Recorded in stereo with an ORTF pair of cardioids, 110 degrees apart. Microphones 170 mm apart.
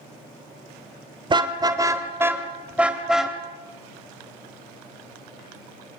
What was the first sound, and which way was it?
A car horn, 30° right.